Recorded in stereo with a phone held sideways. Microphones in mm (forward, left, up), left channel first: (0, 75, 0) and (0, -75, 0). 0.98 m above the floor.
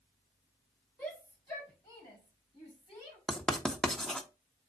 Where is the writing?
5° left (ahead or behind), 1.1 m.